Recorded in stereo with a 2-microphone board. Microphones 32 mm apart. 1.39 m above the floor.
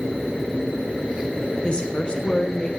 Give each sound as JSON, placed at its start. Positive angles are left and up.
{"t": 1.6, "sound": "a woman speaking", "side_deg": 30, "distance_m": 0.6}